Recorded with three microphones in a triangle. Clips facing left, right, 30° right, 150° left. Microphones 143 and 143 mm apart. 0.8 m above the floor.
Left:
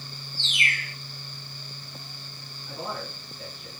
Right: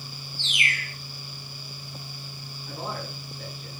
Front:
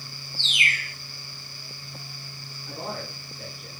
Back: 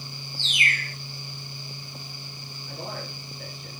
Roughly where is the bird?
Ahead left.